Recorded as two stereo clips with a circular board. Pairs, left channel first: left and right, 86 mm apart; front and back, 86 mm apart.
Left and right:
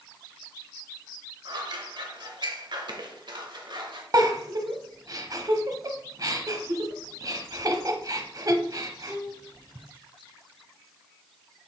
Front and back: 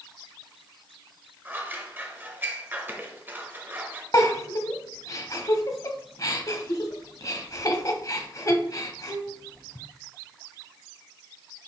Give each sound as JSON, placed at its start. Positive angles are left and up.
{"t": 1.4, "sound": "scissors", "azimuth_deg": -115, "distance_m": 1.0}
{"t": 4.1, "sound": "a giggle", "azimuth_deg": -45, "distance_m": 0.9}